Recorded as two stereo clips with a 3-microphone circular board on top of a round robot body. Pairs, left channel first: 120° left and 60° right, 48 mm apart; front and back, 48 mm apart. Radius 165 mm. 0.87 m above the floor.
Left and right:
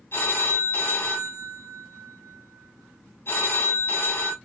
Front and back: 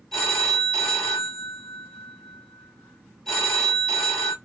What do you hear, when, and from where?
0.1 s a phone ringing: 80° left, 2 m